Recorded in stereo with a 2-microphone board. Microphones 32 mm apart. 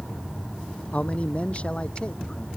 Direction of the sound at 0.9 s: 45° left (ahead or behind).